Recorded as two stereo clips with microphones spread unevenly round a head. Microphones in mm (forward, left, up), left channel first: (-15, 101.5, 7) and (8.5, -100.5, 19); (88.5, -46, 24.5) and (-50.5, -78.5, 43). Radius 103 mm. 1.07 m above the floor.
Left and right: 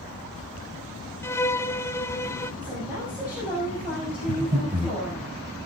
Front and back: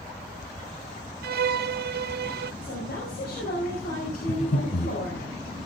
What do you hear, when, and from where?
1.2 s a violin: 175° left, 0.6 m
2.6 s a woman speaking: straight ahead, 5.5 m
4.3 s breathing: 25° right, 3 m